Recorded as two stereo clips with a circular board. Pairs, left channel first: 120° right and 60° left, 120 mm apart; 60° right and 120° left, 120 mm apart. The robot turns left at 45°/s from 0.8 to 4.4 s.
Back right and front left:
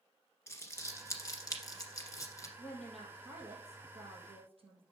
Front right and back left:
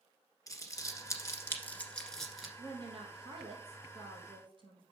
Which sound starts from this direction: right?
Crumpling, at 0.5 s.